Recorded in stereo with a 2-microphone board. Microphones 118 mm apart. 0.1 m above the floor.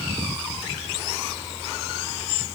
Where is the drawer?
I don't hear a drawer.